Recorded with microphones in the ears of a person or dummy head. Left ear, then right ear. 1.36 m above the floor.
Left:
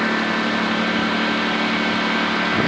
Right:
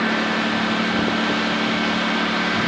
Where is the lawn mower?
20° left (ahead or behind).